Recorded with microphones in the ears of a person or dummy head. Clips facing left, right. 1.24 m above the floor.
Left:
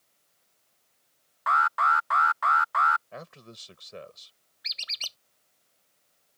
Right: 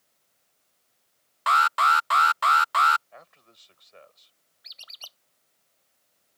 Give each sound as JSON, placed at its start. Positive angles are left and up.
{"t": 1.5, "sound": "an alarm", "side_deg": -40}
{"t": 3.1, "sound": "a man speaking", "side_deg": 70}
{"t": 4.6, "sound": "a squeak", "side_deg": 35}